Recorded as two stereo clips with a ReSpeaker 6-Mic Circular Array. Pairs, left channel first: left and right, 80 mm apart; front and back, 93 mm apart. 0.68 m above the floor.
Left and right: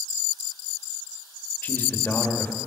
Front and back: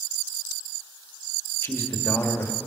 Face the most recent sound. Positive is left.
turn(degrees=45)